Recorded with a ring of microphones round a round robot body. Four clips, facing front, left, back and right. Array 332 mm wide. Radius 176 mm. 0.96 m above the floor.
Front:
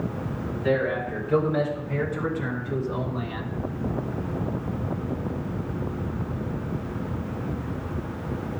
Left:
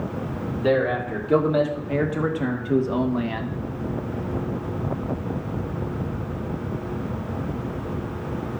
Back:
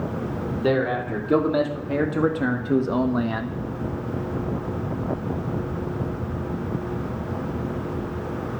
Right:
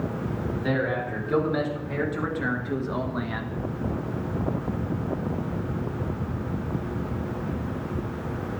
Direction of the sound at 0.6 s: 155° left.